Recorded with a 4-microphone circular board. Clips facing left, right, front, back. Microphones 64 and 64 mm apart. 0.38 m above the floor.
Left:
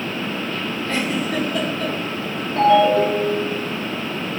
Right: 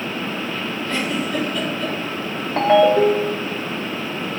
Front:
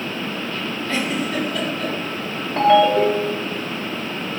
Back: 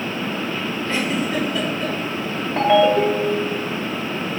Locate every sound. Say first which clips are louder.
0.9 s a giggle: left 1 dB, back 1 dB; 110° left, 2 m
2.6 s a ringtone: even, front 1 dB; 95° right, 0.6 m